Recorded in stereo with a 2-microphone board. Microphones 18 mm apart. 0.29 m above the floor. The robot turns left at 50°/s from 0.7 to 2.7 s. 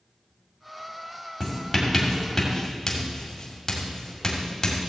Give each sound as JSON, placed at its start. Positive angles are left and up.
{"t": 1.4, "sound": "writing", "side_deg": -15, "distance_m": 2.0}